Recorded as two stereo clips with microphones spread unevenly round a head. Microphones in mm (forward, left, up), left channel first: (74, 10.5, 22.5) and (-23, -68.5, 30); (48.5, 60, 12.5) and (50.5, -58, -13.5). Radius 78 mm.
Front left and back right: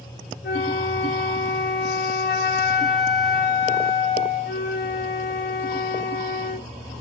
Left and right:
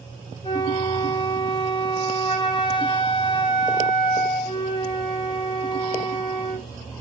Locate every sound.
0.4 s a flute: 55° left, 1.1 m